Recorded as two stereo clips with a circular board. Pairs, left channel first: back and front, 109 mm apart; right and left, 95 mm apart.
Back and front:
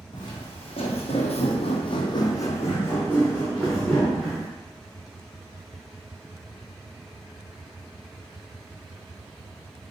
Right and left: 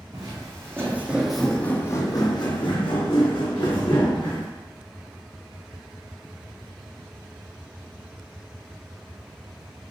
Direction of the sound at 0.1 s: 140° left.